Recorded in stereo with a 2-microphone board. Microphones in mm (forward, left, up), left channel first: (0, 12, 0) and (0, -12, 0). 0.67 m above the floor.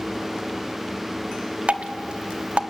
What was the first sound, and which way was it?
Dripping, 50° right (ahead or behind).